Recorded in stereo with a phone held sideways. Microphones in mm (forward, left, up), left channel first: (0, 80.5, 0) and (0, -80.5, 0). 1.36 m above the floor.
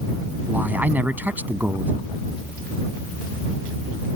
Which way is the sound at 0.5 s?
10° right (ahead or behind).